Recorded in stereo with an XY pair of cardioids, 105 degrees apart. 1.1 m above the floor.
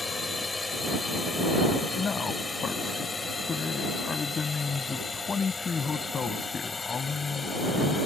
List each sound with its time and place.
0.0 s a drone: 20° left; by 8.1 s 30° left
2.0 s a man speaking: 40° left